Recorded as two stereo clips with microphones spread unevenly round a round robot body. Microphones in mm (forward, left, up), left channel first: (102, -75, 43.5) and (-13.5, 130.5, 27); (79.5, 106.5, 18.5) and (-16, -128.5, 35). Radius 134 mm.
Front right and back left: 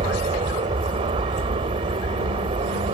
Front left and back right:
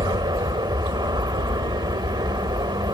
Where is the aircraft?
175° left.